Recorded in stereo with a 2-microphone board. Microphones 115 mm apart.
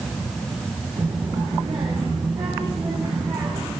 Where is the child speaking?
45° right (ahead or behind), 5 m.